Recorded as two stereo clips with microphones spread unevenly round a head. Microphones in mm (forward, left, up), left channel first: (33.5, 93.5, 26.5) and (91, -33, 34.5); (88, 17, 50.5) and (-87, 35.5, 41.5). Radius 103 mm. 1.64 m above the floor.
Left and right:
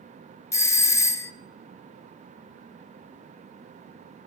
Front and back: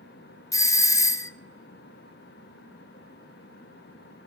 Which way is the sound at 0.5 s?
60° left.